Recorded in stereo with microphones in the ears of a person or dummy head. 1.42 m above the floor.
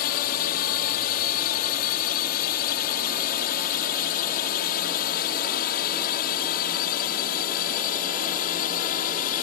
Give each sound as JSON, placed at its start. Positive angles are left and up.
{"t": 0.0, "sound": "a drone", "side_deg": 55}